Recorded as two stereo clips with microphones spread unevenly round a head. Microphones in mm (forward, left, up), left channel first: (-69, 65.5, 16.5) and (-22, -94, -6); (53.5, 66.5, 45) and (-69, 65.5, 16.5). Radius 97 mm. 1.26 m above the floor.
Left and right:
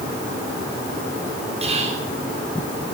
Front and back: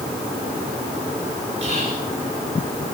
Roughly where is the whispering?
Behind right.